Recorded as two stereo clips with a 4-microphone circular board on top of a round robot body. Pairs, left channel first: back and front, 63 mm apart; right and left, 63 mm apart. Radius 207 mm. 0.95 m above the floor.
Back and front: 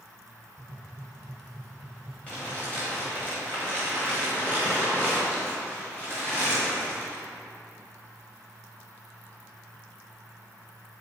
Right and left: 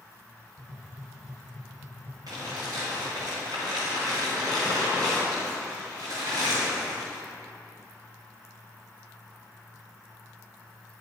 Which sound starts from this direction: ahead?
Tapping, at 0.6 s.